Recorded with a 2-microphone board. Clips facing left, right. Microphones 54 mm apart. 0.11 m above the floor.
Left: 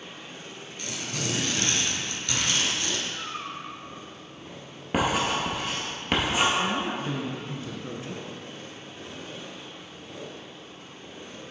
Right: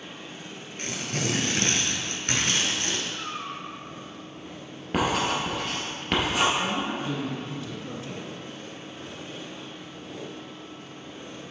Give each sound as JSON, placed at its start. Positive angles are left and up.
{"t": 0.8, "sound": "tearing paper", "side_deg": -45, "distance_m": 0.9}
{"t": 3.1, "sound": "a cat meowing", "side_deg": -25, "distance_m": 1.9}
{"t": 4.9, "sound": "writing", "side_deg": 10, "distance_m": 1.7}
{"t": 6.6, "sound": "a woman speaking", "side_deg": 30, "distance_m": 1.2}